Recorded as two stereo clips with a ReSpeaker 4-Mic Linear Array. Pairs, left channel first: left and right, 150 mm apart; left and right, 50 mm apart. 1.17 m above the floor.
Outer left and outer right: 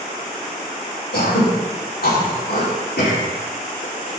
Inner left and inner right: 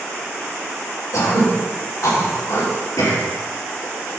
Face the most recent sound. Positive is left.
turn(degrees=85)